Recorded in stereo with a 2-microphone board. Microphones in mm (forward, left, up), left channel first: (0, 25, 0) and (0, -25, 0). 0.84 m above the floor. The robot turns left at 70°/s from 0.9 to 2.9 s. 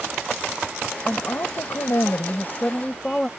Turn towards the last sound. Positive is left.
turn(degrees=15)